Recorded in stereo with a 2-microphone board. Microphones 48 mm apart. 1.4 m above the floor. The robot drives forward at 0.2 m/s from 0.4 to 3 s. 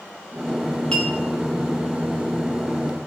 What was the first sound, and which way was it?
A clink, 15° left (ahead or behind).